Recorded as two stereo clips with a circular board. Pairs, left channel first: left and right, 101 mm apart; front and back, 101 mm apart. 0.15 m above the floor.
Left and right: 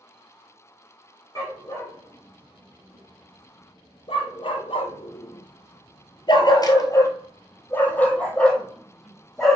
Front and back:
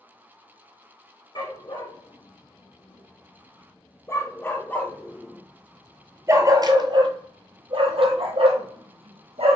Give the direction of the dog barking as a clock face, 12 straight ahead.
11 o'clock.